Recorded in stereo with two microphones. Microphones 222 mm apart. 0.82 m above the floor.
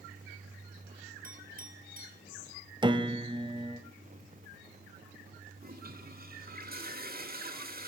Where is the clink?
40° right (ahead or behind), 4.5 m.